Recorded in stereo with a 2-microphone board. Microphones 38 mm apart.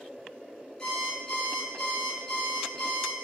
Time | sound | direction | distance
0.8 | an alarm clock | 20° left (ahead or behind) | 4 m